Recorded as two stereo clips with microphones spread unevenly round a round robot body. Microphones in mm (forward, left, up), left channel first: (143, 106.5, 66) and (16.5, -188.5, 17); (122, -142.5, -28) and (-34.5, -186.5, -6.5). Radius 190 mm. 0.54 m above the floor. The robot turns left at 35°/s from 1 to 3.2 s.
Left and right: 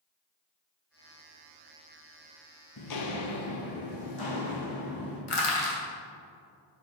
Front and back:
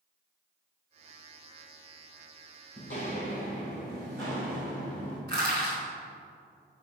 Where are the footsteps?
70° left, 0.9 m; by 5.2 s 105° left, 3 m.